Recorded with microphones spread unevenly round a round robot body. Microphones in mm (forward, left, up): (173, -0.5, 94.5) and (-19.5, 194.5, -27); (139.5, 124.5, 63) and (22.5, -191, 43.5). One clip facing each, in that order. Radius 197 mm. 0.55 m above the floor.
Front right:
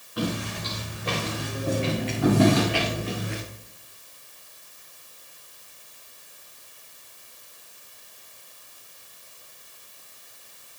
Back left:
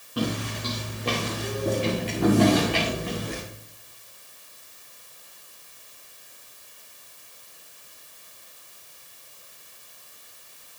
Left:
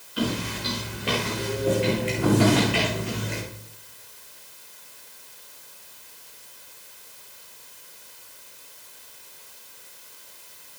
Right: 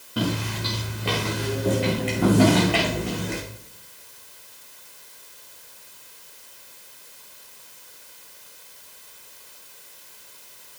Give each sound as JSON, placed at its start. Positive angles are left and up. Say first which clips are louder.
{"t": 0.2, "sound": "footsteps", "louder": "back left 1 dB, right 1 dB", "azimuth_deg": -160, "distance_m": 4.5}